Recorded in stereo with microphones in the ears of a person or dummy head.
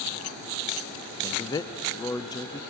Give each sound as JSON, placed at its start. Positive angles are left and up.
{"t": 1.2, "sound": "a man speaking", "side_deg": 15, "distance_m": 0.6}